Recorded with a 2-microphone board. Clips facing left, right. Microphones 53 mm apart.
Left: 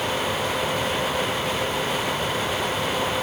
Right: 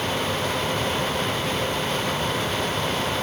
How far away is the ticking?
No ticking in this recording.